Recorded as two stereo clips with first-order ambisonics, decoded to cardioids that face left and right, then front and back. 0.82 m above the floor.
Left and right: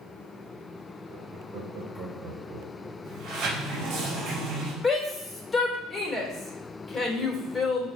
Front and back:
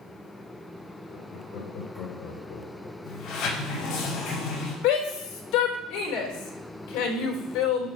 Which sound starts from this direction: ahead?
A shout, at 4.8 s.